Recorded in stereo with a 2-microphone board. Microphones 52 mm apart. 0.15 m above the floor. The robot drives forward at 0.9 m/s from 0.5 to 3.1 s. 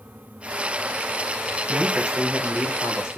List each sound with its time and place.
1.7 s a man speaking: 15° right (ahead or behind), 1.9 m; by 3.2 s 10° right (ahead or behind), 3 m